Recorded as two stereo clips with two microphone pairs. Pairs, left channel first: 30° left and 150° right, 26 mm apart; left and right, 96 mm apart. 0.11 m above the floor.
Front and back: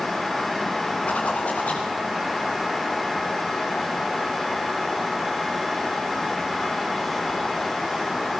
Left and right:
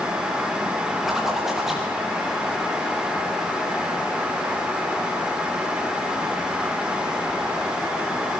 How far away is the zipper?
About 6.5 m.